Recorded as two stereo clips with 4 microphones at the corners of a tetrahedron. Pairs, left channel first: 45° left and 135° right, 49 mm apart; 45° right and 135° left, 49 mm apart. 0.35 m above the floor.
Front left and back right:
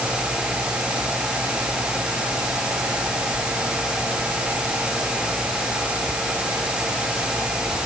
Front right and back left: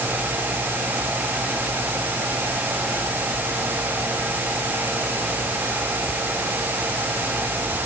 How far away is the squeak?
No squeak in this recording.